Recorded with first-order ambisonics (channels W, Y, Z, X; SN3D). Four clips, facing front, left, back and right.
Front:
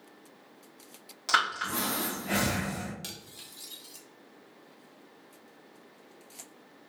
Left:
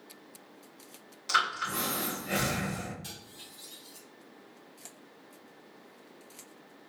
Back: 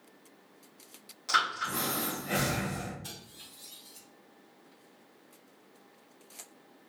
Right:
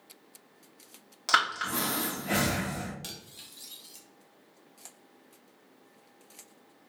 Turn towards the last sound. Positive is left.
turn(degrees=-35)